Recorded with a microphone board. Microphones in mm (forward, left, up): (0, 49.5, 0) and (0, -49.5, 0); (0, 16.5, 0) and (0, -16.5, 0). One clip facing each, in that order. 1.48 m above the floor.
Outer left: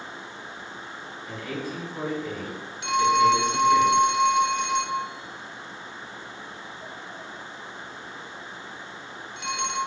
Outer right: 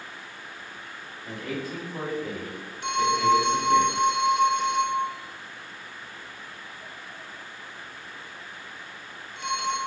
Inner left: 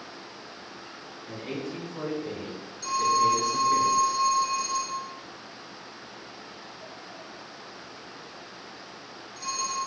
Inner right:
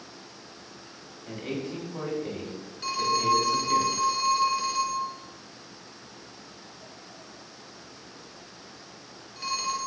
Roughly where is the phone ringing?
Right.